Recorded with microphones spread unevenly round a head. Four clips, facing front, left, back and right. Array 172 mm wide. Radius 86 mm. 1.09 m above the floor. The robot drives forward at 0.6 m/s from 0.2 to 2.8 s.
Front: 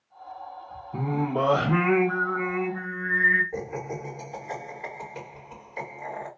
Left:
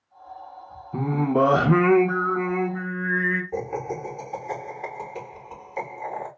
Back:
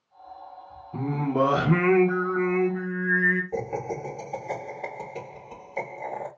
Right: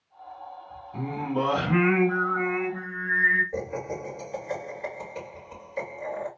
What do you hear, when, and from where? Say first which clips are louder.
0.9 s singing: left 7 dB, back 2 dB; 75° left, 1.2 m; by 3.4 s 125° left, 1.5 m
3.5 s laughter: left 3 dB, back 3 dB; 145° left, 3.5 m